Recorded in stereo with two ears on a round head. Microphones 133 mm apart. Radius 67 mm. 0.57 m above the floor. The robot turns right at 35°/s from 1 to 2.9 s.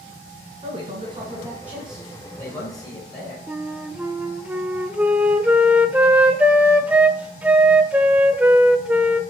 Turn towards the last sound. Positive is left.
turn(degrees=-10)  # may be behind; listen again after turning